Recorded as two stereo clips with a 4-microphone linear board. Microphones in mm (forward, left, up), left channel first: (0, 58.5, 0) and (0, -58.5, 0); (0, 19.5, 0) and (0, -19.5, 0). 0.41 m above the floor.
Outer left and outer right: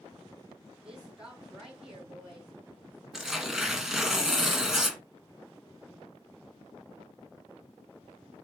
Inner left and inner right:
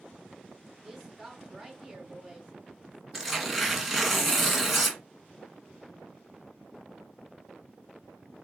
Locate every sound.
0.8 s a woman speaking: 5° right (ahead or behind), 5 m
3.1 s tearing paper: 5° right (ahead or behind), 1.8 m